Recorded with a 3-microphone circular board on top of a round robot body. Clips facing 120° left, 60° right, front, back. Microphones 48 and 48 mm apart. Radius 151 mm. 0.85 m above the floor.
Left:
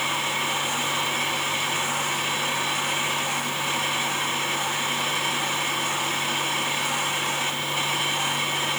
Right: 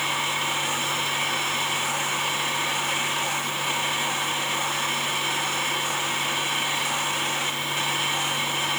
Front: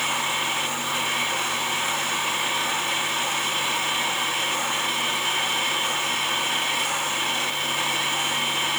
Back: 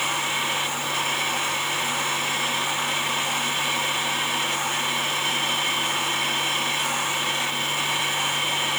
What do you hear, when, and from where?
Only background noise.